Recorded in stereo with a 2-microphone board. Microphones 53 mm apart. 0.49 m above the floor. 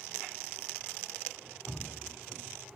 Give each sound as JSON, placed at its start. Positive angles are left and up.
{"t": 1.7, "sound": "dripping", "side_deg": 0, "distance_m": 0.7}